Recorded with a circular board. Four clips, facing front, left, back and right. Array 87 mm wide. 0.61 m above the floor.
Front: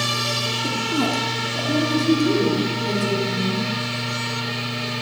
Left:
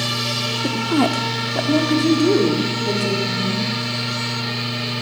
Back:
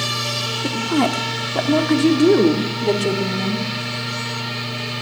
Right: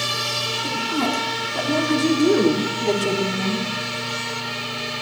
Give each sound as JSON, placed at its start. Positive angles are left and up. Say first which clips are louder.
{"t": 0.6, "sound": "a woman speaking", "louder": "left 5 dB, back 4 dB", "azimuth_deg": 125, "distance_m": 1.6}